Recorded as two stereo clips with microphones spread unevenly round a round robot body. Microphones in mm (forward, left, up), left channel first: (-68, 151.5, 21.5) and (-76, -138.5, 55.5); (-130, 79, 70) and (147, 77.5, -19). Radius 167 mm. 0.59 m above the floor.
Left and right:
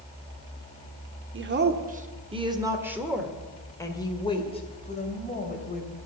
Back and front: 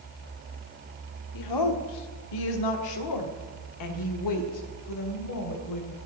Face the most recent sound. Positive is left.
turn(degrees=145)